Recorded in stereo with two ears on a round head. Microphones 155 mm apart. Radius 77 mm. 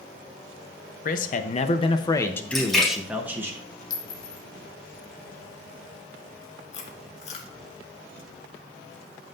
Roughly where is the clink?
Left.